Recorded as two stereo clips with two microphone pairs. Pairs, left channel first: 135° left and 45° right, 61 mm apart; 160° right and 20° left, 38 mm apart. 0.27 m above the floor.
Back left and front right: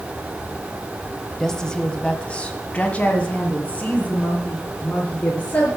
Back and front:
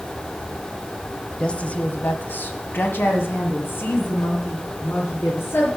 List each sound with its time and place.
1.4 s a woman speaking: 150° right, 1.0 m; by 5.7 s 160° right, 4 m